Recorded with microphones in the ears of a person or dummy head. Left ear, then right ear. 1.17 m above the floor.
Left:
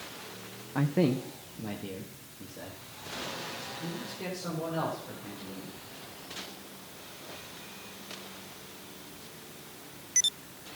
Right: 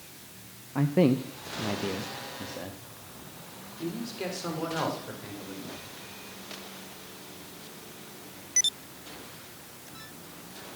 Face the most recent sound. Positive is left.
turn(degrees=-70)  # may be behind; listen again after turning